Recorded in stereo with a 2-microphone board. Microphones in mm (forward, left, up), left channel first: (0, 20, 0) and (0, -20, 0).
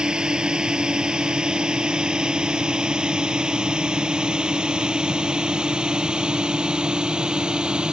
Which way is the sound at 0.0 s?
20° right (ahead or behind).